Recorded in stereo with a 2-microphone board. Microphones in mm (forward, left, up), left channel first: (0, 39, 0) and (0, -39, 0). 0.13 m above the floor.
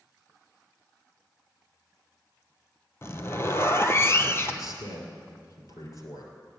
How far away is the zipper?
About 0.7 m.